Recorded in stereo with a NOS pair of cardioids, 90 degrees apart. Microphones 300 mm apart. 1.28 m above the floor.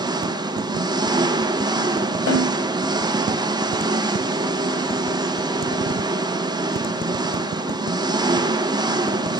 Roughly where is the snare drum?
Ahead left.